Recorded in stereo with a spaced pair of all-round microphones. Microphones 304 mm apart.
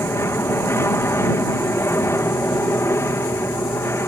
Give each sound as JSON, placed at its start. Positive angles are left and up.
{"t": 0.0, "sound": "an aircraft", "side_deg": 10}